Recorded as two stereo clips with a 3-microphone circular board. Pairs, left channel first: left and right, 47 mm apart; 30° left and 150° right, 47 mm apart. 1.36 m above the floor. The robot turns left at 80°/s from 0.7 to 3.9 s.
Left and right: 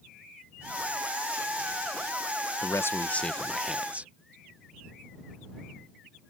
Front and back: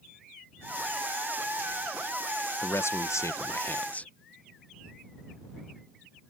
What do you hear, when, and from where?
2.6 s a man speaking: 75° left; by 4.1 s 30° right